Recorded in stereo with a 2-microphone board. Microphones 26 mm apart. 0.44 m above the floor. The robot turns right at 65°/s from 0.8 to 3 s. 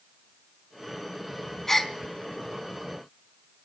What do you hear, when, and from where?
1.7 s a gasp: 20° left (ahead or behind), 0.9 m; by 1.9 s 10° left (ahead or behind), 0.9 m